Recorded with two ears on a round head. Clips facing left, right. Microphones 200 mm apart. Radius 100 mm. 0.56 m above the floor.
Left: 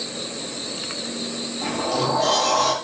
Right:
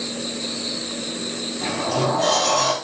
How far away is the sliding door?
About 4 m.